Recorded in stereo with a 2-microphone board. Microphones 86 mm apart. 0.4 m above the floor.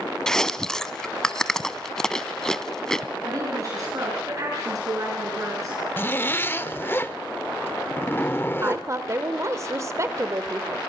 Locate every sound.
0.3 s chewing: 10° left (ahead or behind), 0.6 m
3.2 s a woman speaking: 40° right (ahead or behind), 5 m
6.0 s a zipper: 25° left (ahead or behind), 0.6 m
8.6 s a woman speaking: 35° right (ahead or behind), 1.0 m